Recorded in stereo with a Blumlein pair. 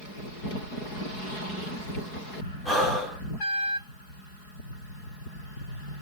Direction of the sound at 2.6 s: 5° left.